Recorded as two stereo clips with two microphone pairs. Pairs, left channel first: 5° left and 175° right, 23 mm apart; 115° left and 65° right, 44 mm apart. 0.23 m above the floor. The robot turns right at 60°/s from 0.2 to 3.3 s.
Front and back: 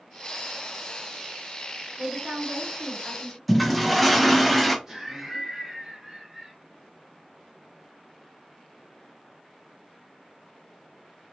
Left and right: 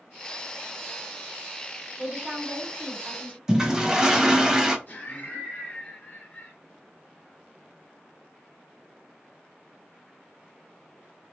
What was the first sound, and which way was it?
A woman speaking, 160° right.